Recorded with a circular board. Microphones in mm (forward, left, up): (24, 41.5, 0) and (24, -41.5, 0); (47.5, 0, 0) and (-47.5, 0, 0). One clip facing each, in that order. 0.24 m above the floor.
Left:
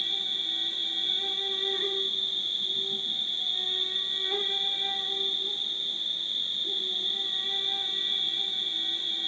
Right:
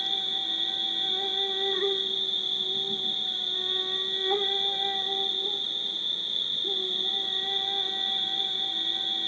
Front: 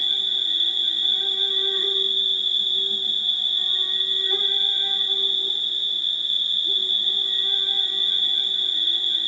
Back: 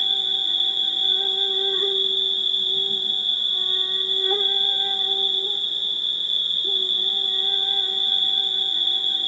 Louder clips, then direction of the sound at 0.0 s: Right 4 dB, back 2 dB; 130° right.